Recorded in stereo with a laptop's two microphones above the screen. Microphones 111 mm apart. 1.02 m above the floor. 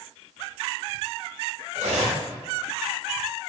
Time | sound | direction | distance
1.8 | cutlery clinking | 85° right | 0.9 m